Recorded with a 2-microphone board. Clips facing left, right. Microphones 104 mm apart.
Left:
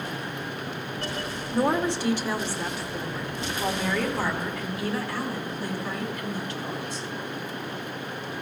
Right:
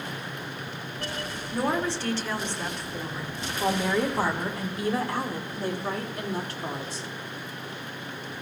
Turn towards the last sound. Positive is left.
turn(degrees=-60)  # may be behind; listen again after turning